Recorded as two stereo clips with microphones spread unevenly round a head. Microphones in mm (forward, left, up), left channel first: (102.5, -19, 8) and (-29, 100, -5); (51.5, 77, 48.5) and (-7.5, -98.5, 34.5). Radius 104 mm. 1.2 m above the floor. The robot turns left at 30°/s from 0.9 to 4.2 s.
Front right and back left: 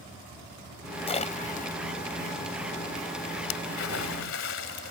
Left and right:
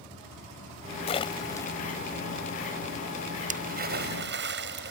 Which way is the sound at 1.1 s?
15° left.